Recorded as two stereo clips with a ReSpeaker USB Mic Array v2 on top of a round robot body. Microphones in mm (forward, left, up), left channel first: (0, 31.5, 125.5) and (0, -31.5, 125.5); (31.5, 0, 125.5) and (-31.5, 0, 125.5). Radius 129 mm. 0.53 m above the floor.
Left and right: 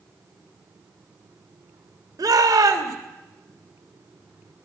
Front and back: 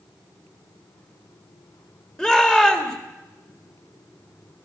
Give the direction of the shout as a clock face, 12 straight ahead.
3 o'clock.